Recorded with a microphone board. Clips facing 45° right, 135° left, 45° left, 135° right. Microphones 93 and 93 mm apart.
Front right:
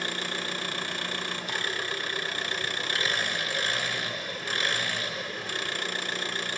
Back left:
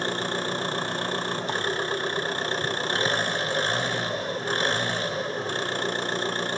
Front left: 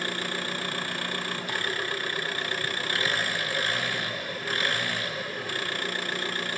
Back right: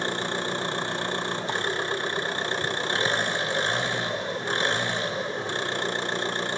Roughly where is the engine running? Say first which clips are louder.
Back left 6 dB, back right 4 dB; behind.